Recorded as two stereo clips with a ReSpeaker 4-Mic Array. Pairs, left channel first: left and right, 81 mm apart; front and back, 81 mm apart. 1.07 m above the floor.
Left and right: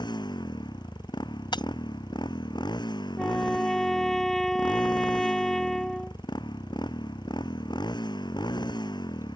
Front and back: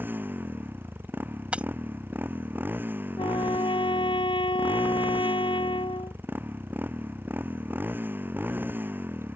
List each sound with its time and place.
0.0 s a motorcycle: 115° left
1.5 s breaking glass: 105° left
3.2 s a trumpet: 5° left